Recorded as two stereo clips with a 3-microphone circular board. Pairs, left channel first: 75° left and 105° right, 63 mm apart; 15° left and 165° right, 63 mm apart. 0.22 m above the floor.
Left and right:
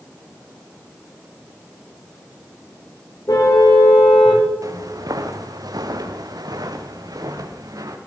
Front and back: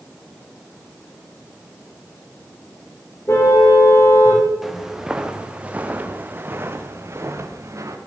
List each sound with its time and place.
3.3 s a car horn: 60° left, 10 m
4.6 s footsteps: 80° right, 3 m; by 8.0 s 125° right, 4 m